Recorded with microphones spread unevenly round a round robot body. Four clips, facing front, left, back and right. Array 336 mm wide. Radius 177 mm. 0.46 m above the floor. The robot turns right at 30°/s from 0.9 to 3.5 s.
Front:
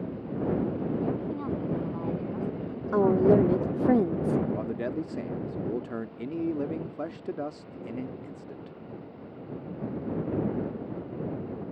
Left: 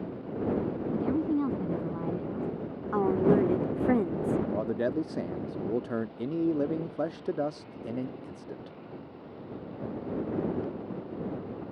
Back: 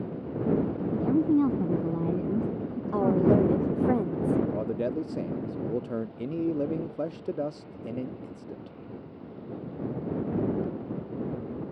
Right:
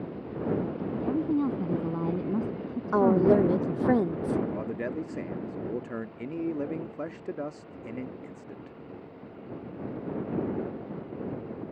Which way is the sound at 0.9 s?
175° left.